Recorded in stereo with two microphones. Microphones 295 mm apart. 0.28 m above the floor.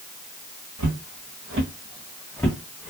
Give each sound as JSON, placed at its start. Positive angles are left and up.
{"t": 0.8, "sound": "footsteps", "side_deg": -75, "distance_m": 1.1}